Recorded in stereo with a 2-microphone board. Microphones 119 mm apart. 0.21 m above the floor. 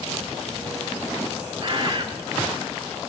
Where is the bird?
40° right (ahead or behind), 3 m.